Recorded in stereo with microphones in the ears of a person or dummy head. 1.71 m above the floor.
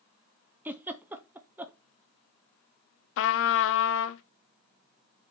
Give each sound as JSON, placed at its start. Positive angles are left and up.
{"t": 0.7, "sound": "a giggle", "side_deg": -10, "distance_m": 0.7}
{"t": 3.2, "sound": "a trumpet", "side_deg": 75, "distance_m": 0.7}